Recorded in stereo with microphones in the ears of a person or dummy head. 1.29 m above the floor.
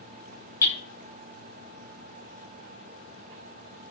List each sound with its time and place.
0.6 s hammering: 20° left (ahead or behind), 7.5 m